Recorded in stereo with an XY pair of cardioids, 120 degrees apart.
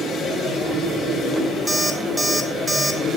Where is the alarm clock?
15° right, 1.0 m.